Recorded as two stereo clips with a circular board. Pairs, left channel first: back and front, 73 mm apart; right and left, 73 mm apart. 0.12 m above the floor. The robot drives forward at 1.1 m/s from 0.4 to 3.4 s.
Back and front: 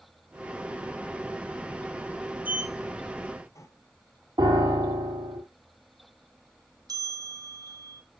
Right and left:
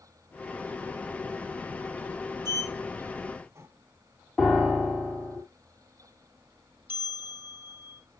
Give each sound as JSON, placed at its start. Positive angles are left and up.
{"t": 2.5, "sound": "a sliding door", "azimuth_deg": 65, "distance_m": 0.8}
{"t": 4.4, "sound": "a piano", "azimuth_deg": -10, "distance_m": 3.0}
{"t": 6.9, "sound": "a bell", "azimuth_deg": 25, "distance_m": 1.7}